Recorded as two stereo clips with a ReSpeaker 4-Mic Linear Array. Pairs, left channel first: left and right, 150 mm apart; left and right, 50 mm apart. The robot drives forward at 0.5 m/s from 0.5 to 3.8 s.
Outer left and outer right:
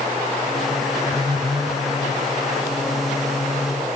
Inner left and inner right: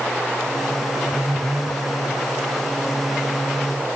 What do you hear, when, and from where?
1.1 s a phone buzzing: 5° right (ahead or behind)